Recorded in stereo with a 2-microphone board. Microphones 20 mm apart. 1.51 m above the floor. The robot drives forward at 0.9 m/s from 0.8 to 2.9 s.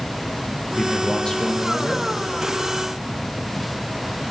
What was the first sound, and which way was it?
A man speaking, 45° left (ahead or behind).